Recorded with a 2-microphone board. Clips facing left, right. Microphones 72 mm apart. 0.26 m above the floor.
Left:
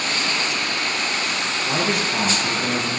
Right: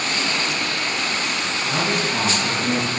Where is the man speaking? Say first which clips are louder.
Even; 5° left (ahead or behind), 5 m.